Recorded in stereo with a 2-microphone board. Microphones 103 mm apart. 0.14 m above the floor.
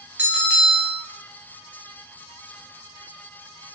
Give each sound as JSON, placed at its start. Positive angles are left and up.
{"t": 0.2, "sound": "a bell", "side_deg": -15, "distance_m": 1.1}